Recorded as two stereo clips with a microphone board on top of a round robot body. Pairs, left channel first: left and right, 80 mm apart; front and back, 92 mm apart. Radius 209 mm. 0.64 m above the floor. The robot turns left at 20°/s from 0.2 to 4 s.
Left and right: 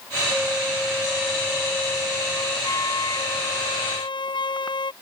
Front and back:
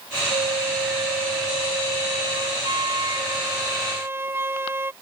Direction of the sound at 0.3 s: 175° right.